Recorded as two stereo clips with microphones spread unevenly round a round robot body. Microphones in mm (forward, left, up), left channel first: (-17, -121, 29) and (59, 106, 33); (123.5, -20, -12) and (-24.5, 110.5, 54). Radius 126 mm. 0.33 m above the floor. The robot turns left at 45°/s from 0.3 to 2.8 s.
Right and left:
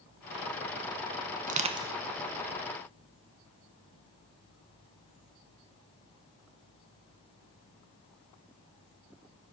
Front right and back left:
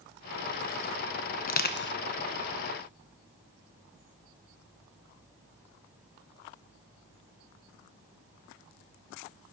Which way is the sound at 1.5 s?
10° left.